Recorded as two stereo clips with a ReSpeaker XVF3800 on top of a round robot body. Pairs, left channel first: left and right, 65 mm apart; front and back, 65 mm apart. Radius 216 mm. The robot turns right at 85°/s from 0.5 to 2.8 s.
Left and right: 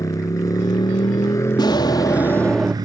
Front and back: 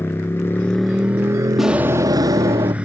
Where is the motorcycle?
55° left; by 2.8 s 110° right.